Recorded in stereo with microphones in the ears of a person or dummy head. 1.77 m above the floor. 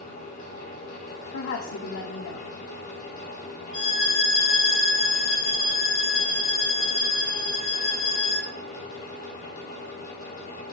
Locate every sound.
0.0 s a fan: 45° left (ahead or behind), 2.5 m
1.3 s a woman speaking: 75° left (ahead or behind), 1.0 m
3.7 s a violin: 35° left (ahead or behind), 3 m